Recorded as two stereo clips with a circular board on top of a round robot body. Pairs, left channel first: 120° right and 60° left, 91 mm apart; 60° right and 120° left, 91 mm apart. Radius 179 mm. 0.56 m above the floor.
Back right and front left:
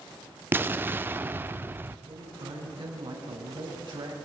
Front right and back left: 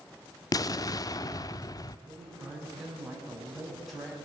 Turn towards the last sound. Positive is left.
turn(degrees=30)